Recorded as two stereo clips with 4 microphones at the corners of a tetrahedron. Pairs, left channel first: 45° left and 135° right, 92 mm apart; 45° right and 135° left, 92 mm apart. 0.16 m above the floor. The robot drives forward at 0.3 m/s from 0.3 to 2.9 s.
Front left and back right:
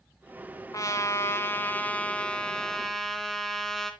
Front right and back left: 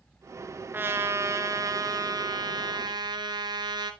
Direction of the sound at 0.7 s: 80° left.